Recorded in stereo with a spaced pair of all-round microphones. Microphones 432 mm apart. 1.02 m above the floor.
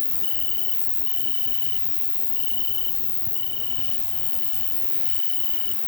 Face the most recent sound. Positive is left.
turn(degrees=60)  # may be behind; listen again after turning